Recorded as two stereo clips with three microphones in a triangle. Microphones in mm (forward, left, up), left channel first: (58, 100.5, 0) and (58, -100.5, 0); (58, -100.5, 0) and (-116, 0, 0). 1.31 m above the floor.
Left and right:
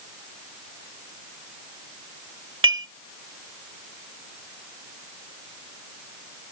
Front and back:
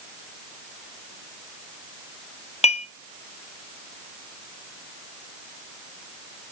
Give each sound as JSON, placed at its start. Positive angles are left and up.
{"t": 2.6, "sound": "dishes clattering", "azimuth_deg": -90, "distance_m": 1.5}